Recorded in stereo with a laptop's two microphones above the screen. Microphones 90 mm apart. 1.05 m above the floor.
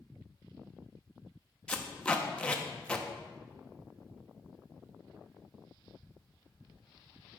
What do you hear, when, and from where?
1.7 s tape being pulled: 10° left (ahead or behind), 1.1 m